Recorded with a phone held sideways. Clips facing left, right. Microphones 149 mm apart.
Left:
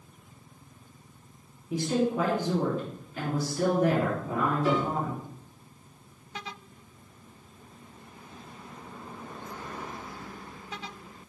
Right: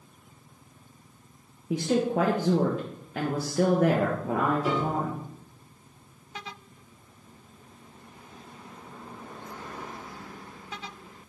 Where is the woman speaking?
80° right, 1.3 m.